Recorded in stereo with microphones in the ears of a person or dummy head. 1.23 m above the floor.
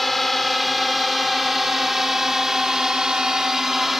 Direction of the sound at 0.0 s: 5° left (ahead or behind).